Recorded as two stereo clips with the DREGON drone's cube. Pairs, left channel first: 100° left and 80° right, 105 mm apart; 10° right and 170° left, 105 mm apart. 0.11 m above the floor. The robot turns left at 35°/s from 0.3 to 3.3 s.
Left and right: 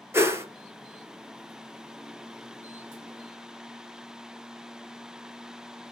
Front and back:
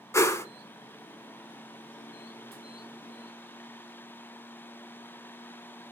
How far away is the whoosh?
About 0.6 m.